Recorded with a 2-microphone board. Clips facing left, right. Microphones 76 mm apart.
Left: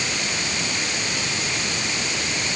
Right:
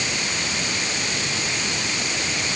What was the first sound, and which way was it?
Only background noise.